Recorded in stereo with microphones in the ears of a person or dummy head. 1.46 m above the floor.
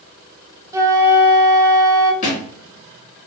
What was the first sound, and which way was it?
A flute, 15° right (ahead or behind).